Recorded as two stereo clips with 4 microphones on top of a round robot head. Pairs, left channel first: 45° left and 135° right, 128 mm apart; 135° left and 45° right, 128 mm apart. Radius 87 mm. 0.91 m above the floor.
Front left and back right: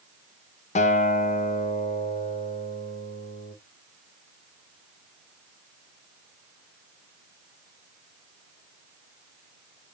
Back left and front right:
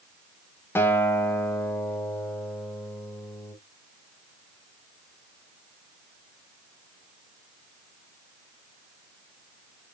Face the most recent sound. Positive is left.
turn(degrees=65)